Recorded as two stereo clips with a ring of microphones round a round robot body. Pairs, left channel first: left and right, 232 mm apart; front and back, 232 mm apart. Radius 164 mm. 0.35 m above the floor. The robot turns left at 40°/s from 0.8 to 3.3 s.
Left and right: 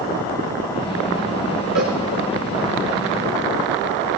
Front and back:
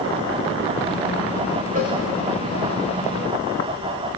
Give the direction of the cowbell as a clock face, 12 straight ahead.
4 o'clock.